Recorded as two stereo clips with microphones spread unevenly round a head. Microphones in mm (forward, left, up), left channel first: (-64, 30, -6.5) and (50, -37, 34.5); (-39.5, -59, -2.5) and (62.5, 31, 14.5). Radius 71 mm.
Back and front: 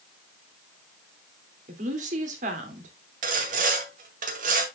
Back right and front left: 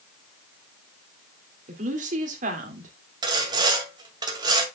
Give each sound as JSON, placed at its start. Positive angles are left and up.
{"t": 1.7, "sound": "a woman speaking", "azimuth_deg": 10, "distance_m": 2.5}
{"t": 3.2, "sound": "sawing", "azimuth_deg": -15, "distance_m": 2.0}